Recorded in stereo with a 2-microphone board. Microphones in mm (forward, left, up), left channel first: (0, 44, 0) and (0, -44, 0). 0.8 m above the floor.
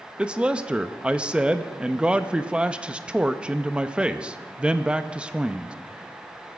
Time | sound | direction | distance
0.2 | a man speaking | 10° right (ahead or behind) | 0.5 m